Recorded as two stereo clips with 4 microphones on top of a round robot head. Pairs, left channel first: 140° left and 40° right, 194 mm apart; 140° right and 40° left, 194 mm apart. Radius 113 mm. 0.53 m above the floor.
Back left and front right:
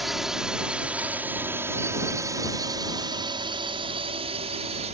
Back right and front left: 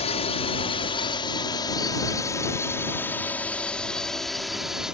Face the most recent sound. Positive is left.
turn(degrees=-45)